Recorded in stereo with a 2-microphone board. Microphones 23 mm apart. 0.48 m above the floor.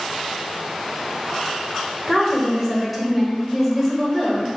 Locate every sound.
2.1 s a woman speaking: 5° right (ahead or behind), 1.1 m